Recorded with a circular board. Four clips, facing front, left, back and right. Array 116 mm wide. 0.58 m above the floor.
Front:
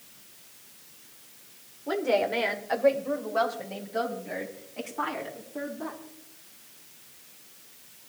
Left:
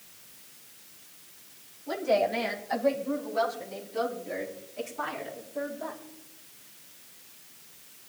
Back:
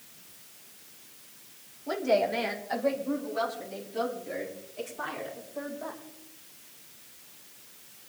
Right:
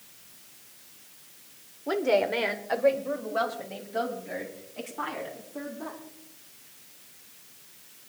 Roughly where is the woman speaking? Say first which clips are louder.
Right 1 dB, even; right.